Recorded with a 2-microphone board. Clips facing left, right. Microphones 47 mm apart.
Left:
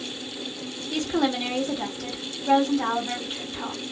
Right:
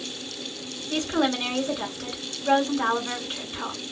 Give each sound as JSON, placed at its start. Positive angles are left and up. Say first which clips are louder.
{"t": 0.9, "sound": "a woman speaking", "louder": "even", "side_deg": -40, "distance_m": 1.9}